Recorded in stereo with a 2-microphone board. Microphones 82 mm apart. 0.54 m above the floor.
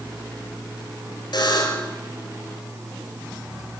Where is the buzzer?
65° left (ahead or behind), 3 m.